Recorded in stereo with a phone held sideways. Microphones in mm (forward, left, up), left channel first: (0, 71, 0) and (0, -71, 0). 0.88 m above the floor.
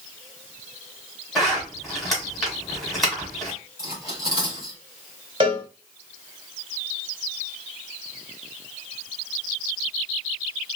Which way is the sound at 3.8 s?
30° right (ahead or behind).